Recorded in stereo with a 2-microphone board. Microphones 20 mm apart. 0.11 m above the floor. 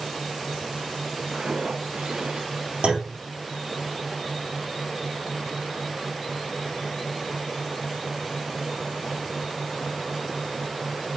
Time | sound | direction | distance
1.3 | footsteps | 55° right (ahead or behind) | 3 m
2.8 | a clunk | 70° right (ahead or behind) | 3.5 m